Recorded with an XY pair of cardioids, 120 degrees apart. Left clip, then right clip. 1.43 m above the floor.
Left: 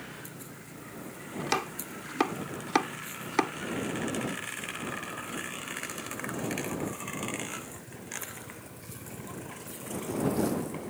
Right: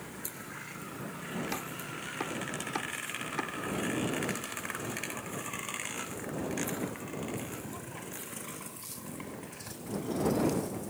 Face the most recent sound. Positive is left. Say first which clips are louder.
# left 9 dB
turn(degrees=55)